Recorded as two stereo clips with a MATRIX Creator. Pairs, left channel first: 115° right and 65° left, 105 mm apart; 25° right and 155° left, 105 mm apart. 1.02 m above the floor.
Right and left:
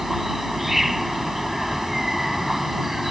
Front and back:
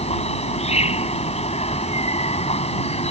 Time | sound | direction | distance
0.0 | an insect | 20° right | ?